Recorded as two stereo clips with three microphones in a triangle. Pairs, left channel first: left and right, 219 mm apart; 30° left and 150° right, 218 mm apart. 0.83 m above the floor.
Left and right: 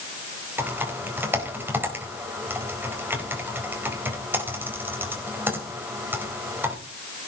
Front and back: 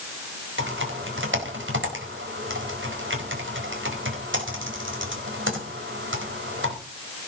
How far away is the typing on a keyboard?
About 4.5 m.